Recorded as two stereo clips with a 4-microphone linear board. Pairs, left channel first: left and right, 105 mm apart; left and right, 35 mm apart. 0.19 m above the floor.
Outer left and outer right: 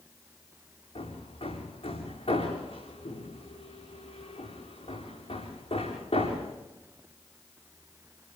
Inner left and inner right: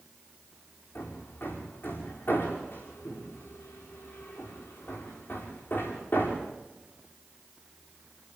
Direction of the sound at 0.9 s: 60° left (ahead or behind).